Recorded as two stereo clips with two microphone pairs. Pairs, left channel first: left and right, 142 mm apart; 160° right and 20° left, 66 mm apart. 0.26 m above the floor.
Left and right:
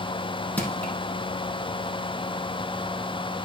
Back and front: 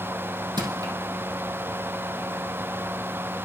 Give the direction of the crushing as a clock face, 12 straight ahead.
12 o'clock.